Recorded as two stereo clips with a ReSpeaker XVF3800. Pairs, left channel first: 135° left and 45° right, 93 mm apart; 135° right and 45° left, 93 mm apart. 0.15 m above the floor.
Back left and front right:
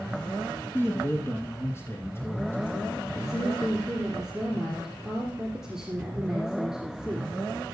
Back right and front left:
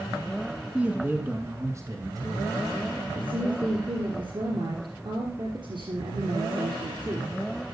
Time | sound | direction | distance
0.7 | a man speaking | 110° left | 1.7 m
3.1 | a woman speaking | 40° left | 3 m